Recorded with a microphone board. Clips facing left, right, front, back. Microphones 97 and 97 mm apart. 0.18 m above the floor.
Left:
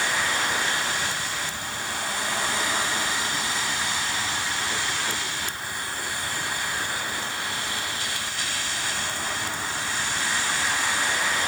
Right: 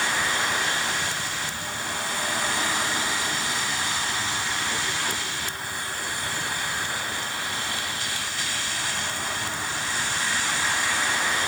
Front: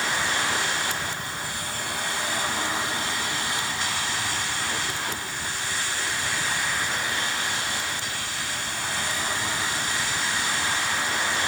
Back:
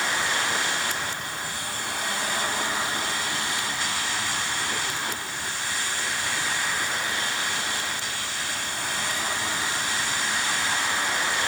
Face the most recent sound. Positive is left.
No sound to turn to.